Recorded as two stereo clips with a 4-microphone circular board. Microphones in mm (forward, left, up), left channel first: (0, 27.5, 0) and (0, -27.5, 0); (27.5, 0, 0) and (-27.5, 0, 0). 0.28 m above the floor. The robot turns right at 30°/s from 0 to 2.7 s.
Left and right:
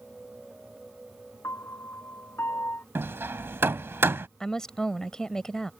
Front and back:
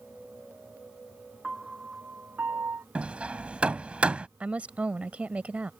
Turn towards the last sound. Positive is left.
turn(degrees=150)